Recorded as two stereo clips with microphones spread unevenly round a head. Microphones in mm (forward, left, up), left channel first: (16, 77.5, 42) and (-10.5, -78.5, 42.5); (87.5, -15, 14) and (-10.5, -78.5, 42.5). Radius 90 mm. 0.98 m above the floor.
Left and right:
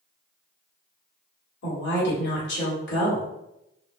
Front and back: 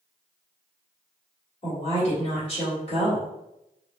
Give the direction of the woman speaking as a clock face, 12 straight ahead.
9 o'clock.